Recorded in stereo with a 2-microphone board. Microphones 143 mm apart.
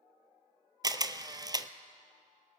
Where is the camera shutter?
30° right (ahead or behind), 0.5 m.